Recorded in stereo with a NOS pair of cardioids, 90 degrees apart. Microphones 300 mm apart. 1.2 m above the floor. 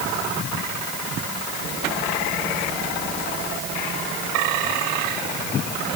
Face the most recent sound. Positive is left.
No sound to turn to.